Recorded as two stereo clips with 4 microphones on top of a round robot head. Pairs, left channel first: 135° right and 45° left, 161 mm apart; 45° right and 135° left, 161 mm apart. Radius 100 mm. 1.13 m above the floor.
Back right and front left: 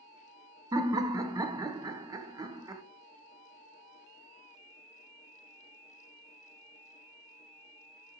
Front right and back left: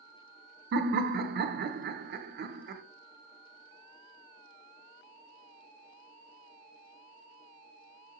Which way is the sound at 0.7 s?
115° left.